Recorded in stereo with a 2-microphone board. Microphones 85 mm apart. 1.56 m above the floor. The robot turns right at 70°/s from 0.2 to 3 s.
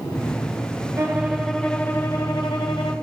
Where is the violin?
35° right, 1.0 m; by 2.9 s 105° left, 1.0 m.